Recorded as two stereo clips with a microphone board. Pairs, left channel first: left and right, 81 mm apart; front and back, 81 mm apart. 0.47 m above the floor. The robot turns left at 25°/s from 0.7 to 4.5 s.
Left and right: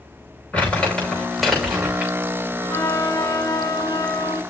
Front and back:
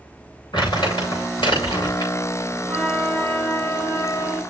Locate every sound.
0.5 s crumpling: 20° left, 6.5 m; by 2.1 s 15° right, 6.5 m
2.7 s a flute: 85° left, 2.5 m; by 4.4 s 40° left, 2.5 m